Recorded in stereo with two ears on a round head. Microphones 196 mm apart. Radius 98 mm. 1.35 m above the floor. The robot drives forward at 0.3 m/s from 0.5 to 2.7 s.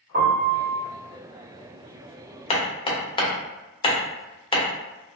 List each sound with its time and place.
0.1 s a piano: 40° right (ahead or behind), 1.3 m; by 0.8 s 45° right (ahead or behind), 1.2 m
2.5 s hammering: 25° left (ahead or behind), 0.5 m